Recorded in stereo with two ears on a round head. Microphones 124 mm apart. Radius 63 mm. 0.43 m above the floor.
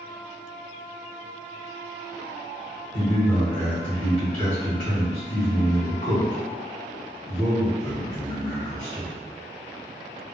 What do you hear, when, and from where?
2.9 s a man speaking: 60° left (ahead or behind), 1.7 m